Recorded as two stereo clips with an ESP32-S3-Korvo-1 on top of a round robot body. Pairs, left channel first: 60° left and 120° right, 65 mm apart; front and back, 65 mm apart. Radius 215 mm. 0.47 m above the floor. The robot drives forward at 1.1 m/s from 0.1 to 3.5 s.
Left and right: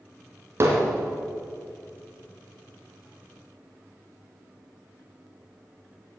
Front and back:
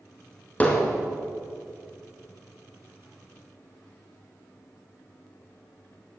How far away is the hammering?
About 2.5 m.